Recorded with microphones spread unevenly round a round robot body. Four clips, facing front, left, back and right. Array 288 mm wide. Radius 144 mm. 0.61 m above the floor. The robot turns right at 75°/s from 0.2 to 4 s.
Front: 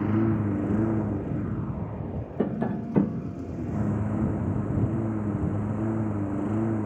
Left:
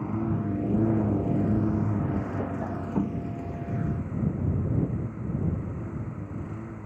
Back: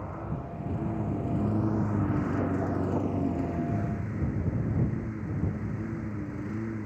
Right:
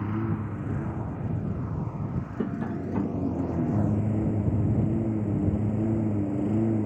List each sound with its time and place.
0.0 s a lawn mower: straight ahead; by 6.9 s 75° right
2.4 s tapping: 35° right; by 3.3 s 35° left